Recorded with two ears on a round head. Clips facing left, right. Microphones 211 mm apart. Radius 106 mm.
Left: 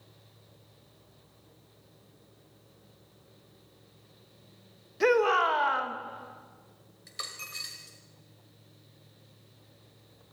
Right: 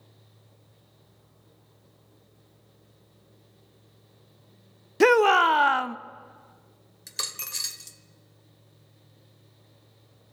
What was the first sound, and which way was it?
A shout, 65° right (ahead or behind).